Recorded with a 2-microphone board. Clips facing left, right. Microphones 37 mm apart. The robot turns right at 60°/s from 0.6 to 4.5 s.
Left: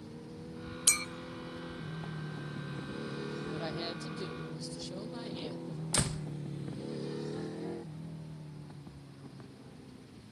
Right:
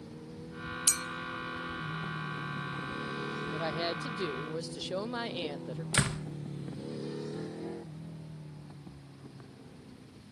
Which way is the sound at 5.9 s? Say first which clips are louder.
Right 4 dB; 40° right (ahead or behind).